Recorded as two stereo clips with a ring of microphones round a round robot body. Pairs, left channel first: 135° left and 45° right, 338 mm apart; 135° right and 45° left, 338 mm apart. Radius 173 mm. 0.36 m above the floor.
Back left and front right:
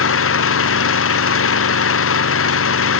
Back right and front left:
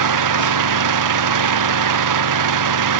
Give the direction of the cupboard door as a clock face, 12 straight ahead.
No cupboard door in this recording.